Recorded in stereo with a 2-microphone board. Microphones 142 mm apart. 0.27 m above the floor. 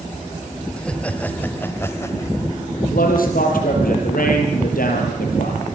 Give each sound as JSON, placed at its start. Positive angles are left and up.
{"t": 0.8, "sound": "laughter", "side_deg": 5, "distance_m": 1.7}
{"t": 2.8, "sound": "a man speaking", "side_deg": 80, "distance_m": 7.0}